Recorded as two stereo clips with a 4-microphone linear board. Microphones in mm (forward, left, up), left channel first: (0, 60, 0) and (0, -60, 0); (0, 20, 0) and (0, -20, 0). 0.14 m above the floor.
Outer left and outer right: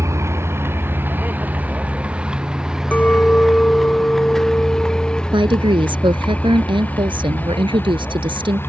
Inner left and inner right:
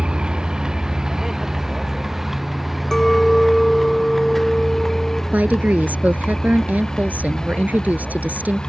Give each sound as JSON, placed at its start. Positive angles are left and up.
{"t": 0.0, "sound": "a vehicle", "side_deg": -25}
{"t": 2.9, "sound": "a clink", "side_deg": 10}
{"t": 5.3, "sound": "a woman speaking", "side_deg": -45}